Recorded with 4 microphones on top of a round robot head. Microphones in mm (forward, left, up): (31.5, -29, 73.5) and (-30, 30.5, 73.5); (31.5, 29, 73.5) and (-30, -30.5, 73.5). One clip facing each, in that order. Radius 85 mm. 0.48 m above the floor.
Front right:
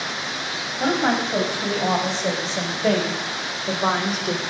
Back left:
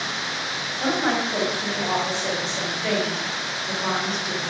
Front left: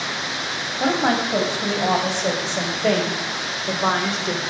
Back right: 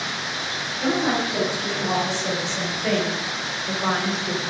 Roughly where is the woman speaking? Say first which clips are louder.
Front right 2 dB, front left 2 dB; ahead.